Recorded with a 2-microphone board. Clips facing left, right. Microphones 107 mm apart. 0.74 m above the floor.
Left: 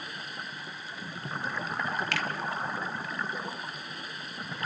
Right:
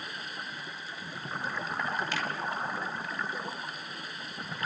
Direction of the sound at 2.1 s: 70° left (ahead or behind).